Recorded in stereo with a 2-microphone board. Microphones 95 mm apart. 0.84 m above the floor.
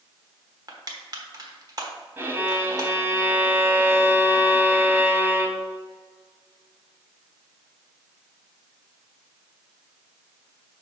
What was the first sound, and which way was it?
Crushing, 45° right (ahead or behind).